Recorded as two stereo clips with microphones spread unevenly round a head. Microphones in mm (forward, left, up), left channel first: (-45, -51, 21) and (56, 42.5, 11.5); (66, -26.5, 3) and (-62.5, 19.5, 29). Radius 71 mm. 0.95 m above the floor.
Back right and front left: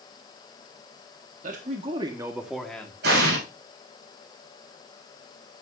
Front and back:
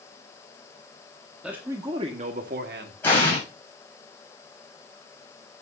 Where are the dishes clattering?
I don't hear dishes clattering.